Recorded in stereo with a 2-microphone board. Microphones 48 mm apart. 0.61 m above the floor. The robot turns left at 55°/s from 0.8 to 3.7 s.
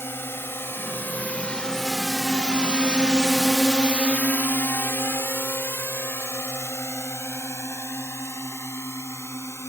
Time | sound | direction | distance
0.0 | a drone | 60° left (ahead or behind) | ?